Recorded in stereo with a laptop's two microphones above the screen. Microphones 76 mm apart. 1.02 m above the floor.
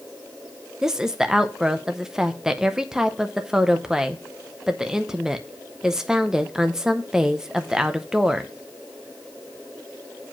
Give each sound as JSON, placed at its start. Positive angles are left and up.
{"t": 0.8, "sound": "a woman speaking", "side_deg": -5, "distance_m": 0.7}